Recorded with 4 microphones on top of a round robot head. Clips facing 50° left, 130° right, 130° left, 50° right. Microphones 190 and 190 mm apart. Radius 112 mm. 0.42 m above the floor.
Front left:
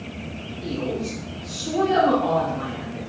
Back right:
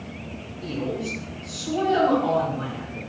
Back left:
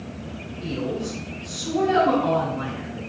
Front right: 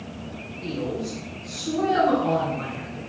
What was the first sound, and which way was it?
A woman speaking, 125° left.